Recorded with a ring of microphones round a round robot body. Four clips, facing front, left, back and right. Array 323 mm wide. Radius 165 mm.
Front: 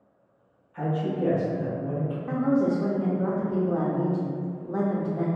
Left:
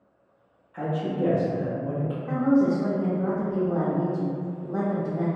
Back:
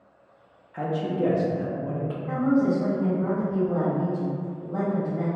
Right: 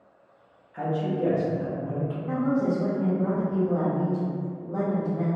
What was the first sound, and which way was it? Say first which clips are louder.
A man speaking: right 1 dB, back 1 dB; straight behind.